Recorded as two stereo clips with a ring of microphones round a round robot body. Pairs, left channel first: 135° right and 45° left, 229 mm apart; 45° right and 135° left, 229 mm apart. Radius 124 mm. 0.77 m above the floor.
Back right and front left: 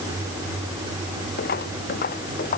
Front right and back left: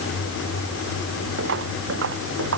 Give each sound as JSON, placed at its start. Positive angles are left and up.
{"t": 1.4, "sound": "footsteps", "azimuth_deg": 175}